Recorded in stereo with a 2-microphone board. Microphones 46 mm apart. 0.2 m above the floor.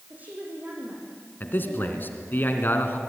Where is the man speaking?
45° left (ahead or behind), 2.5 m.